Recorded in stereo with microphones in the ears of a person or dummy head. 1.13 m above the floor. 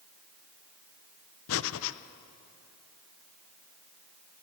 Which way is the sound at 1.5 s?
65° left (ahead or behind).